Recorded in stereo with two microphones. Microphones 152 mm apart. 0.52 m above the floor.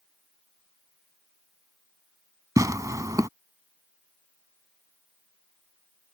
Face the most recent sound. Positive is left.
turn(degrees=-20)  # may be behind; listen again after turning